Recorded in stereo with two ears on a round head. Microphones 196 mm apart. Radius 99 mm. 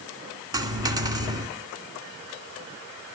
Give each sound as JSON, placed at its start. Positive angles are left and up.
{"t": 0.5, "sound": "a dropped coin", "side_deg": -15, "distance_m": 1.8}